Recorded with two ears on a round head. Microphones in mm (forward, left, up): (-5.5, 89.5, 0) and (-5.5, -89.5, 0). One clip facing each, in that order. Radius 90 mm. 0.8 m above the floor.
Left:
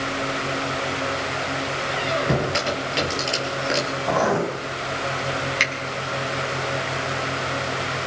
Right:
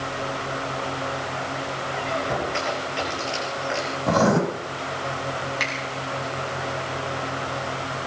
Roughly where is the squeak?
Left.